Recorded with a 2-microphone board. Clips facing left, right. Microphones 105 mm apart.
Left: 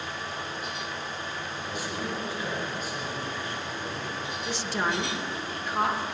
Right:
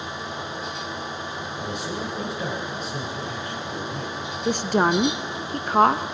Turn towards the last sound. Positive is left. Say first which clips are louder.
# right 10 dB
turn(degrees=-60)  # may be behind; listen again after turning